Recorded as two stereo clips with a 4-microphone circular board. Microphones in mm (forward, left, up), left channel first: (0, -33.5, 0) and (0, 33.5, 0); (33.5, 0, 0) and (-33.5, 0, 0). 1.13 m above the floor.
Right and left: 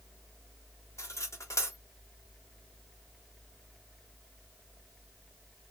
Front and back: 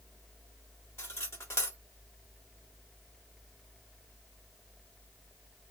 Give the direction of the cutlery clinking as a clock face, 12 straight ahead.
2 o'clock.